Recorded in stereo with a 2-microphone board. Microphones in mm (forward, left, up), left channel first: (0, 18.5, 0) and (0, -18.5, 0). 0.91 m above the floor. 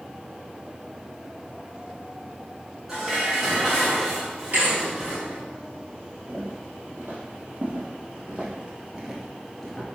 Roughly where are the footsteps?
Right.